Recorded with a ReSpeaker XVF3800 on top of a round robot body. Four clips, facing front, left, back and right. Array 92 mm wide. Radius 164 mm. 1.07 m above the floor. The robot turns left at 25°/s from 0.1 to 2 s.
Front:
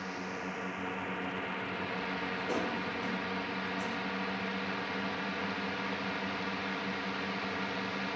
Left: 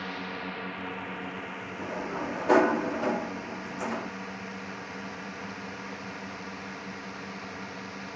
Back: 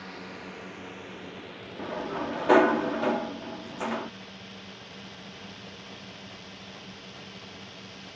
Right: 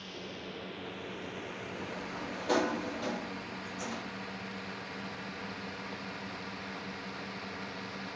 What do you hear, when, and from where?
0.0 s a drone: 75° left; by 8.2 s 15° left
1.8 s a sliding door: 155° left; by 4.1 s 150° left